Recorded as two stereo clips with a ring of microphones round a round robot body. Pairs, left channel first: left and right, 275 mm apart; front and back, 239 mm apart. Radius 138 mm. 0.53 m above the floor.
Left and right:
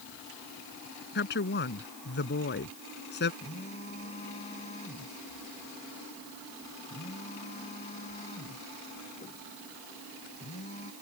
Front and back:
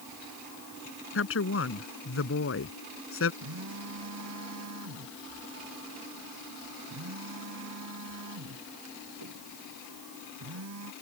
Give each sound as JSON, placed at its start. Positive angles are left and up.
{"t": 1.1, "sound": "a woman speaking", "azimuth_deg": 35}
{"t": 3.4, "sound": "a phone buzzing", "azimuth_deg": 160}